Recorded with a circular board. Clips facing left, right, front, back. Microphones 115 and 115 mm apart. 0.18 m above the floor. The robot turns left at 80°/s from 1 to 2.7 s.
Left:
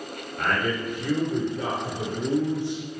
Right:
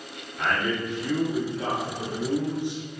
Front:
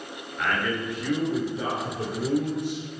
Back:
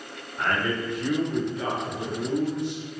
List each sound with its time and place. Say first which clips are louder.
0.4 s a man speaking: even, back 1 dB; 115° left, 2.5 m; by 2.8 s 20° right, 2.5 m